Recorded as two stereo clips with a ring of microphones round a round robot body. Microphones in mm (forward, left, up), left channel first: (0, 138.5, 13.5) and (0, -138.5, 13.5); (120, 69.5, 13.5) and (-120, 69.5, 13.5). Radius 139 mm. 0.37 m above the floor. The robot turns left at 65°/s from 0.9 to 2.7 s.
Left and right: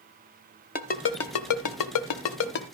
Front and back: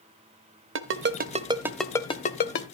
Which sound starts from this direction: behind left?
A ringtone, at 0.8 s.